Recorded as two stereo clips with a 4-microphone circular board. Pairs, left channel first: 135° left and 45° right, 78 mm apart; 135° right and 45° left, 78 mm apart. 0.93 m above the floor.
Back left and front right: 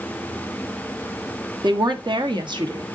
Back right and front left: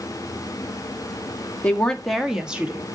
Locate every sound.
1.6 s a woman speaking: 65° right, 1.5 m; by 2.9 s 25° right, 1.6 m